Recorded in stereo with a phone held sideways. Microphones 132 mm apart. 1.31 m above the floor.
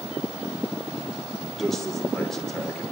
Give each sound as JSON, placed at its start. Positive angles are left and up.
{"t": 1.5, "sound": "a man speaking", "side_deg": 5, "distance_m": 5.5}